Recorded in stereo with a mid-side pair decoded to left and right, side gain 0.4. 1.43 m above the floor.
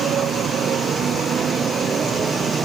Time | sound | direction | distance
0.0 | a motorcycle | 65° right | ?